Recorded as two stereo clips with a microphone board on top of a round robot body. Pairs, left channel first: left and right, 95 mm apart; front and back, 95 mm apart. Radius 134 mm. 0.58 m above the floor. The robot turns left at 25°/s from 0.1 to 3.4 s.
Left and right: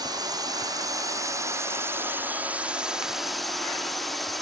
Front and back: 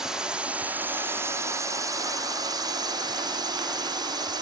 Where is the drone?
100° right; by 4.4 s straight behind.